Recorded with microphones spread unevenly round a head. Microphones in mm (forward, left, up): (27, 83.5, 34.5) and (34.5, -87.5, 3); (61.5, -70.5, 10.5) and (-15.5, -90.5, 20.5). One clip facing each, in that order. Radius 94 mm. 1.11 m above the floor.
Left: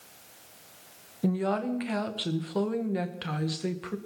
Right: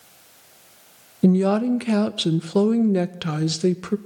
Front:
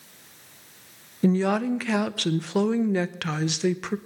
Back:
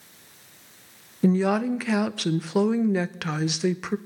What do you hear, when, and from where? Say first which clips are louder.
1.2 s a woman speaking: right 10 dB, back 1 dB; 75° right, 0.8 m